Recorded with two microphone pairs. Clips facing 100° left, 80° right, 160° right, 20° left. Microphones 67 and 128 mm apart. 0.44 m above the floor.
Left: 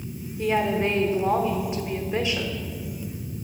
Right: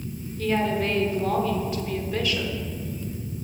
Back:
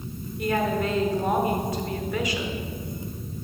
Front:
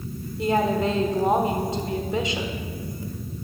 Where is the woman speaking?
60° left, 0.9 m.